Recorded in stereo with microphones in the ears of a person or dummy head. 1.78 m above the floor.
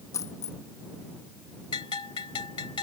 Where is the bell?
20° left (ahead or behind).